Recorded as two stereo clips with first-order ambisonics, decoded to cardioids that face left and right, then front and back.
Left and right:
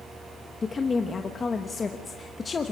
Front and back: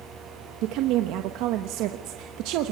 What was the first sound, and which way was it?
A woman speaking, 165° left.